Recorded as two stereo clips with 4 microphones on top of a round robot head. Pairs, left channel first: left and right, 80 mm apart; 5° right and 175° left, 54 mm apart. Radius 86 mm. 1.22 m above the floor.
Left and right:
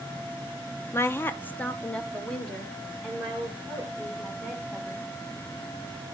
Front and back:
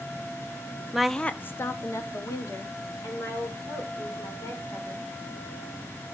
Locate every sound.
0.9 s a woman speaking: 105° left, 0.5 m; by 5.1 s straight ahead, 3.5 m